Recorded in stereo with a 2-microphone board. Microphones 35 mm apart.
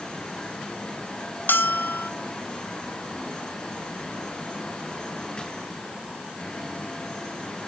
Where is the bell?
80° left, 0.7 m.